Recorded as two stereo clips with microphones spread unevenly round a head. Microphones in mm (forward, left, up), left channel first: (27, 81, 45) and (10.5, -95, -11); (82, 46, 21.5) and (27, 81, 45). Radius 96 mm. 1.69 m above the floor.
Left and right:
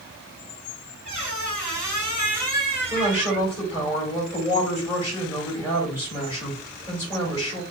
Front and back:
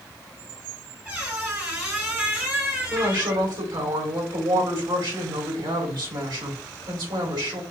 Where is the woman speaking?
155° left, 2.5 m.